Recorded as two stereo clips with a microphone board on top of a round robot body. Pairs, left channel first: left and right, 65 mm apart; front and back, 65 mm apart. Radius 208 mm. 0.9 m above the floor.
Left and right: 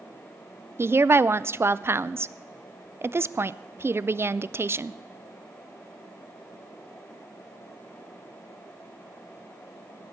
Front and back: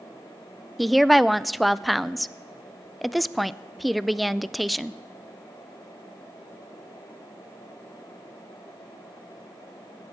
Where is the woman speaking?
90° right, 0.6 m.